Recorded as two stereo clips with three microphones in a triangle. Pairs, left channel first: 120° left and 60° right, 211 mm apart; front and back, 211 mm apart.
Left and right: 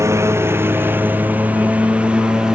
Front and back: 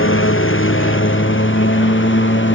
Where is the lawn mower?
15° left; by 2.6 s 25° left.